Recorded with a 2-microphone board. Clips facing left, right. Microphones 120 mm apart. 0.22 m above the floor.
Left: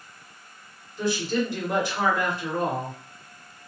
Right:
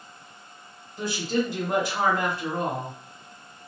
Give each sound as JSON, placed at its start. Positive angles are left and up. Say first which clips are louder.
{"t": 1.0, "sound": "a woman speaking", "louder": "left 1 dB", "side_deg": -30, "distance_m": 1.7}